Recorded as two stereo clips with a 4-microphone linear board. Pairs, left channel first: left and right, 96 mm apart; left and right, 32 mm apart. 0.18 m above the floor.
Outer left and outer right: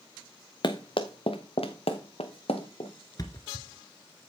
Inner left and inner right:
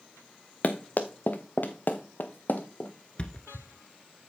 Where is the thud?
40° left (ahead or behind), 1.4 m.